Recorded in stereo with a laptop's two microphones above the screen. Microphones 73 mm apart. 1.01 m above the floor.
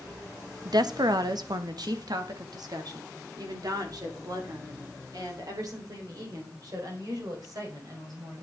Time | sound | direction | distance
0.7 | a woman speaking | 65° right (ahead or behind) | 0.9 m